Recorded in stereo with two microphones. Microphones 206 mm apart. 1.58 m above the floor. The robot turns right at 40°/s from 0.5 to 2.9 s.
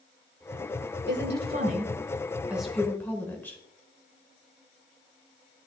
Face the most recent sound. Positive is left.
turn(degrees=10)  # may be behind; listen again after turning